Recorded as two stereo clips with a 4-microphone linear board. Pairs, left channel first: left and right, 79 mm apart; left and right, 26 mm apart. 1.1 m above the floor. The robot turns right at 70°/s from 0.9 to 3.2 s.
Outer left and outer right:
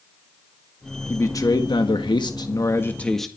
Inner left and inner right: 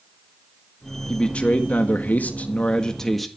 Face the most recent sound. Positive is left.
turn(degrees=175)